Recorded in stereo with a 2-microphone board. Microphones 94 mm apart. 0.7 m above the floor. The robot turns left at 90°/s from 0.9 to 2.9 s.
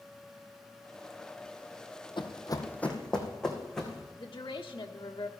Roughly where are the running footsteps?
Left.